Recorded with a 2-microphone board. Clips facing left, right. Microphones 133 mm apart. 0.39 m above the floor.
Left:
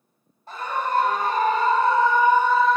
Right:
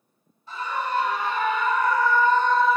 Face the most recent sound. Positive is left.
turn(degrees=-5)  # may be behind; listen again after turning